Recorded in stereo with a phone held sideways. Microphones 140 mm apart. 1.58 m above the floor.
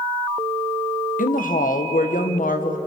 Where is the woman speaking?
85° left, 1.6 m.